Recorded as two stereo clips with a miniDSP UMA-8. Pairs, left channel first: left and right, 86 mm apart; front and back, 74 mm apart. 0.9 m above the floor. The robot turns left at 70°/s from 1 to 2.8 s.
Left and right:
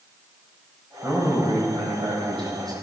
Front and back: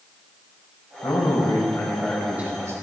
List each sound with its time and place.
1.0 s a man speaking: 15° right, 4.5 m; by 2.7 s 130° right, 4.5 m